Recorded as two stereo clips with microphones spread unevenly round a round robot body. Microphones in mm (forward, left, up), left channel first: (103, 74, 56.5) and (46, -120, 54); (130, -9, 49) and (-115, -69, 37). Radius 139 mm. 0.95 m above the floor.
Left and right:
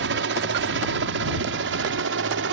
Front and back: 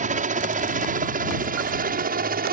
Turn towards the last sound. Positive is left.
turn(degrees=-115)